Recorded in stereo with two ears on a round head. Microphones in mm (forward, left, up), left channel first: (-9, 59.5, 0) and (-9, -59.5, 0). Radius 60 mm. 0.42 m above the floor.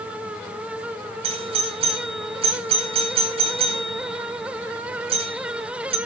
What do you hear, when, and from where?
1.2 s a doorbell: 45° right (ahead or behind), 3.5 m